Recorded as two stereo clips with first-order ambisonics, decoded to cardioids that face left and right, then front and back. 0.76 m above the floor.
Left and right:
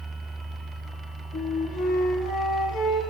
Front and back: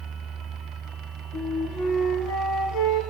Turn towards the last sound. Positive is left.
turn(degrees=60)